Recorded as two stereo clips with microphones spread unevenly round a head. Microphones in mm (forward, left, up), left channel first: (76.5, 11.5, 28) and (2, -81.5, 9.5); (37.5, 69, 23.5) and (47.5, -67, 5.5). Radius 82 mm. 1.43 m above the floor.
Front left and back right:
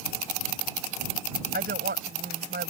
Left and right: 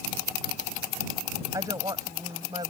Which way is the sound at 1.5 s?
160° right.